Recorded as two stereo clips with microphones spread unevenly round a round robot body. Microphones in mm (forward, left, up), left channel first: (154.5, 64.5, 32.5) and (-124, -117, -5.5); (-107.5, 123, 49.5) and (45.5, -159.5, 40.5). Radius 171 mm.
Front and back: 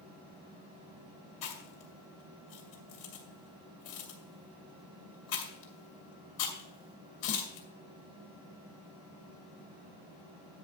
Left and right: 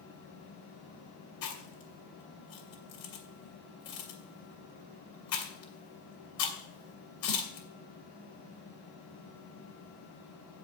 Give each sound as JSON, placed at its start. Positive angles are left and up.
{"t": 1.4, "sound": "chewing", "azimuth_deg": 70, "distance_m": 2.5}